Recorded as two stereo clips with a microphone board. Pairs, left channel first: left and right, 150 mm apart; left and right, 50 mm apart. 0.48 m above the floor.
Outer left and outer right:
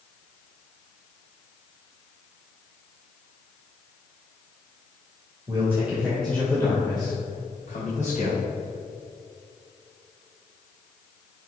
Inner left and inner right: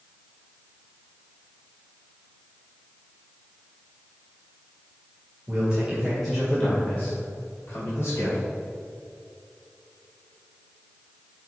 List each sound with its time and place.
5.5 s a man speaking: 20° right (ahead or behind), 1.9 m; by 8.4 s 55° left (ahead or behind), 3 m